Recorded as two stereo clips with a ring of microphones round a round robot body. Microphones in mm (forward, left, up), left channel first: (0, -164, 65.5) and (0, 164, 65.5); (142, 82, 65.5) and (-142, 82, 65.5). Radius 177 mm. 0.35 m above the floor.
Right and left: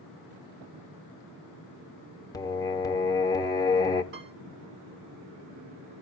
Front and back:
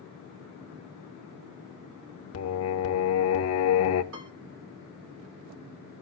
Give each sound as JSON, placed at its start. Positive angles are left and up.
{"t": 2.3, "sound": "singing", "azimuth_deg": -15, "distance_m": 0.9}
{"t": 4.1, "sound": "a piano", "azimuth_deg": 140, "distance_m": 4.0}